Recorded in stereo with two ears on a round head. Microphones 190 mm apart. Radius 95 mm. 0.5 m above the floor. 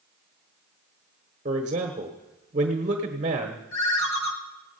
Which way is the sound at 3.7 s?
65° left (ahead or behind).